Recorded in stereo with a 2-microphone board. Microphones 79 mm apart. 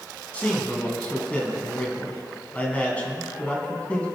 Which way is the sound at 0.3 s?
20° left (ahead or behind).